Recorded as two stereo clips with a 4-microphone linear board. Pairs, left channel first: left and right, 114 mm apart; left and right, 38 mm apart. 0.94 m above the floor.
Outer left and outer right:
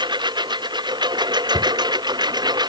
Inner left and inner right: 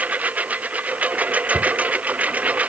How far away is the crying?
No crying in this recording.